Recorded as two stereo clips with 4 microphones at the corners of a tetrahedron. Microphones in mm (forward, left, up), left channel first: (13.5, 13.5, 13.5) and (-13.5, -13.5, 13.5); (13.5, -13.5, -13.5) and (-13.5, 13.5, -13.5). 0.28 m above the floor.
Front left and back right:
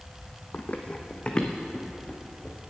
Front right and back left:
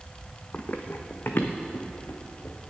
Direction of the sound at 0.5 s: 5° left.